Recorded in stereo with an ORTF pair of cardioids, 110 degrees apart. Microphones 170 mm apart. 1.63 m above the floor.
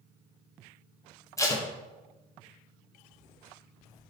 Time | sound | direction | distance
1.4 | tape being pulled | 20° left | 1.4 m